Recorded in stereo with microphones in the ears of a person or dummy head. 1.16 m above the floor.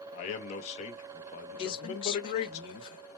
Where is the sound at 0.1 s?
40° left (ahead or behind), 1.0 m.